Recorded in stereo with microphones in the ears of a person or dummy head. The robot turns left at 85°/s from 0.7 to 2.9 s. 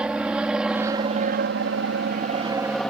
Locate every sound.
0.0 s an aircraft: 5° right (ahead or behind); by 2.9 s 5° left (ahead or behind)